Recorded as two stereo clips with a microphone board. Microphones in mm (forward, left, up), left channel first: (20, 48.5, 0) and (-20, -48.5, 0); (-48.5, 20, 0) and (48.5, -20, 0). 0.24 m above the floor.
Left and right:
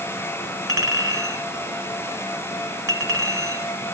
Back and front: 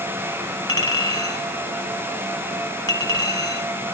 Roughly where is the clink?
Behind.